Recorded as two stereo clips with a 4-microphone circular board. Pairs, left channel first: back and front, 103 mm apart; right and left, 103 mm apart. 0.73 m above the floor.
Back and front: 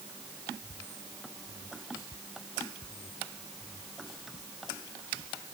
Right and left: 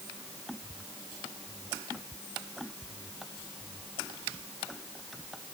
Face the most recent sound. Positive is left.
No sound to turn to.